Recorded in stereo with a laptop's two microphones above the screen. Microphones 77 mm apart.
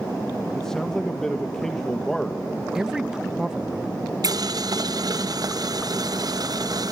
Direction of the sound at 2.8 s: 5° right (ahead or behind).